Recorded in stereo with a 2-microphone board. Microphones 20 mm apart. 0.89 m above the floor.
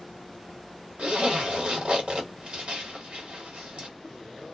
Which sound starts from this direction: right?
A zipper, at 1.0 s.